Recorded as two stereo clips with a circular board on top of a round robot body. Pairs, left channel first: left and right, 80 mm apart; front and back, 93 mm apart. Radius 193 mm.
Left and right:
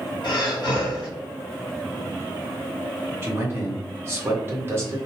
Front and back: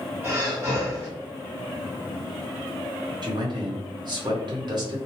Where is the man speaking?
150° right, 1.3 m.